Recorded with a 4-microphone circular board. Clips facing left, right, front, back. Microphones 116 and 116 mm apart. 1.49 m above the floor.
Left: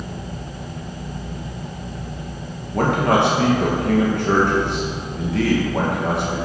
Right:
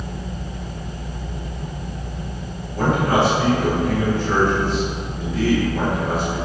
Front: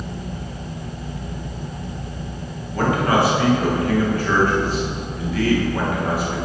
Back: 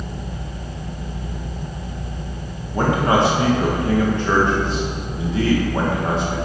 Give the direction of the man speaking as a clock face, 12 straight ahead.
8 o'clock.